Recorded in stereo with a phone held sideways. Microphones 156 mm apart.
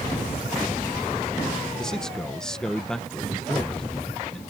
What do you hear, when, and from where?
1.8 s a man speaking: 5° left (ahead or behind)